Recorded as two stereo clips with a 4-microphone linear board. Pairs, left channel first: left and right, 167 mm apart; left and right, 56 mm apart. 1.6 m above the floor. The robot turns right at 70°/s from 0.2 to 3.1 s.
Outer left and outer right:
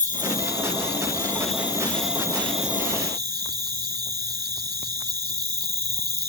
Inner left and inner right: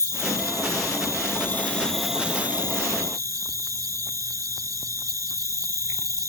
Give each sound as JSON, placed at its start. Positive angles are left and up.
{"t": 0.0, "sound": "an insect", "azimuth_deg": 50}